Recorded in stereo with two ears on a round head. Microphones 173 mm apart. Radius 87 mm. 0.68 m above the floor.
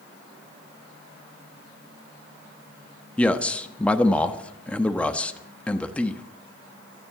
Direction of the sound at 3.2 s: 5° left (ahead or behind).